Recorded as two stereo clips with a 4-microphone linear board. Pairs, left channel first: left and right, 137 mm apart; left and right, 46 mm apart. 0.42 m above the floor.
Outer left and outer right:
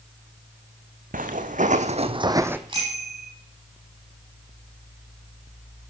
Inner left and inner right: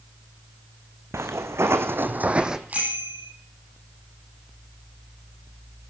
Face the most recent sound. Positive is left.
turn(degrees=-35)  # may be behind; listen again after turning